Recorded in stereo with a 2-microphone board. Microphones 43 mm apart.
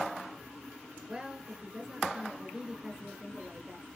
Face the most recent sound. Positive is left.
turn(degrees=-20)  # may be behind; listen again after turning